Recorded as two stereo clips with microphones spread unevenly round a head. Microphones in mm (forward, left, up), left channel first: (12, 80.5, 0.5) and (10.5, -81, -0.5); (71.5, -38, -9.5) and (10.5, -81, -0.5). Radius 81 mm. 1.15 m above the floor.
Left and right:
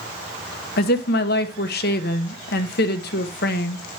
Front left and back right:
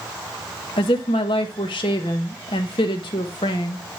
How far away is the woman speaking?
About 1.1 m.